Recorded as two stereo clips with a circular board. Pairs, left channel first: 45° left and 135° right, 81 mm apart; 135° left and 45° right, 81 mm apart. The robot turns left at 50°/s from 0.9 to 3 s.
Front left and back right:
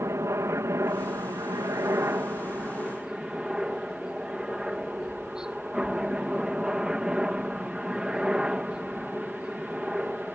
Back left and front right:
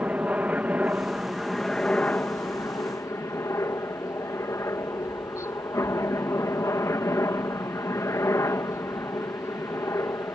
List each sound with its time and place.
0.0 s a helicopter: 105° right; by 10.3 s 150° left